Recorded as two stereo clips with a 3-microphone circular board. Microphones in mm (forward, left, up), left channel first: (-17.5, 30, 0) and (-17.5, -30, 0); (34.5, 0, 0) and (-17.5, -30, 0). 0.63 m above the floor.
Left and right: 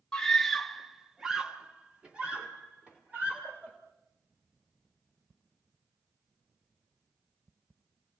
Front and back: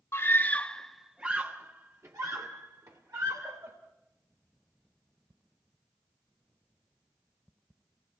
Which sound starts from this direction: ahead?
A scream, at 0.1 s.